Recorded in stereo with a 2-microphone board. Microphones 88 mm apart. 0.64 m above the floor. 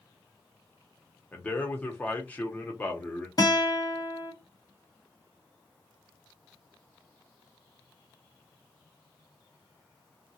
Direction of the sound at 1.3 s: 15° left (ahead or behind).